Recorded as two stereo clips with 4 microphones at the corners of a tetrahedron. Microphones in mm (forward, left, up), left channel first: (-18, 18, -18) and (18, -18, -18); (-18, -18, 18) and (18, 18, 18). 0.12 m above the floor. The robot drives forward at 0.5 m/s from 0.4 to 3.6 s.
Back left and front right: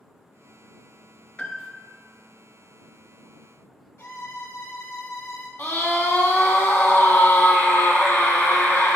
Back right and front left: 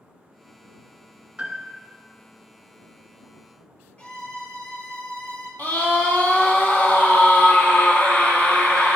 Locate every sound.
1.4 s a piano: 90° left, 0.9 m; by 1.9 s 120° left, 1.0 m
4.0 s a violin: 165° left, 2 m
5.6 s a scream: 175° right, 2.5 m